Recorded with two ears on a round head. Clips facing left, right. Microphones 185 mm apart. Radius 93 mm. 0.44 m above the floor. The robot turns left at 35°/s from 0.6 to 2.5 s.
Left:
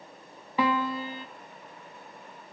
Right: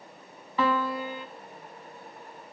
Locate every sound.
0.6 s a piano: 15° left (ahead or behind), 0.6 m; by 1.3 s 35° left (ahead or behind), 0.6 m